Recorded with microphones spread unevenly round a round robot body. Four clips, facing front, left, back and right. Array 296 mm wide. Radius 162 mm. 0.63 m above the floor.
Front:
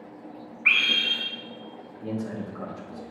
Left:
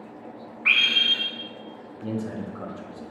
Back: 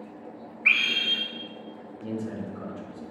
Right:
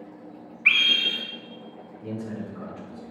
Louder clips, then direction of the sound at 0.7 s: Even, front 1 dB; 130° right.